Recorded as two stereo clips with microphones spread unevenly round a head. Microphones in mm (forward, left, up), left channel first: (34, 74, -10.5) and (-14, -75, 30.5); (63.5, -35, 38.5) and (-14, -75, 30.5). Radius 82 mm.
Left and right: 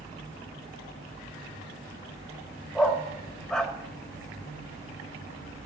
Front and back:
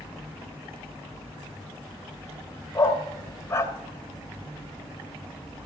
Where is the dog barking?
20° right, 1.8 m.